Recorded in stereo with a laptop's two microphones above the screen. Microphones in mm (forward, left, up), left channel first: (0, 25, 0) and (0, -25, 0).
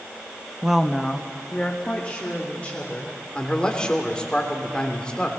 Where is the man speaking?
20° left (ahead or behind), 3 m.